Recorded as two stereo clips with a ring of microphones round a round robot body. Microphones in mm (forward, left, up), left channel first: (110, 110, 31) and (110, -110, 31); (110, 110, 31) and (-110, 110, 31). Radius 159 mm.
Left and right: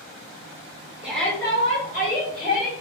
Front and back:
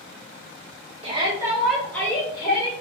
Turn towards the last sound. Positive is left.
turn(degrees=65)